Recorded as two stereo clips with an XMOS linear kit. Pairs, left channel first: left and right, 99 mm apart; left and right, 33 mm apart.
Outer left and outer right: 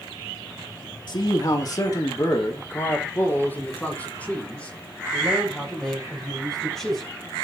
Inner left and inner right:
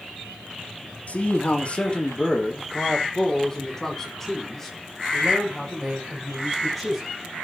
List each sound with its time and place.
1.1 s a man speaking: 55° left (ahead or behind), 2.5 m; by 7.1 s 5° left (ahead or behind), 7.5 m